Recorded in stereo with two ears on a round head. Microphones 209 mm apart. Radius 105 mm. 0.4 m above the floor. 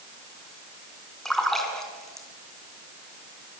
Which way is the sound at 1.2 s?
Centre (ahead or behind).